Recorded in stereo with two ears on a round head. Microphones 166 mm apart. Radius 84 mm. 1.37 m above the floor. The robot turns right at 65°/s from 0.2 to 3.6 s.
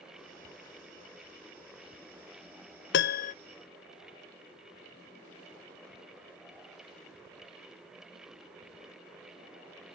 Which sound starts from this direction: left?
A piano, at 2.9 s.